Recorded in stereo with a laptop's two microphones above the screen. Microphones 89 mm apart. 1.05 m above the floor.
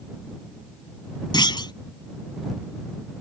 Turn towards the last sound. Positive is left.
turn(degrees=60)  # may be behind; listen again after turning